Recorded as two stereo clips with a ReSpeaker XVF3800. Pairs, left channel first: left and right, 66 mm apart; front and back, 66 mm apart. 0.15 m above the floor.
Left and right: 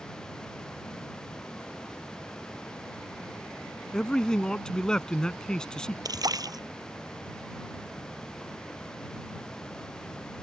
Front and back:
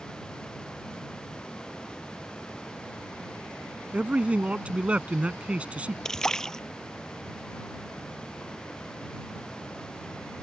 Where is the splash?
80° right.